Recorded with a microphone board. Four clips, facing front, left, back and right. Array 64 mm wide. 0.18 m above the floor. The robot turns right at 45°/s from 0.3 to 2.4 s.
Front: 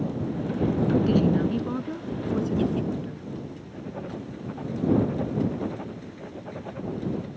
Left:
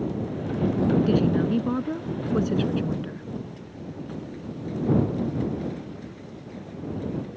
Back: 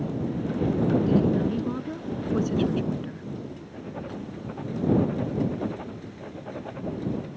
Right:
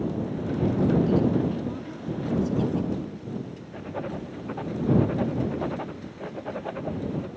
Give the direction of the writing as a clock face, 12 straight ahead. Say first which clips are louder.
Right 4 dB, front 1 dB; 3 o'clock.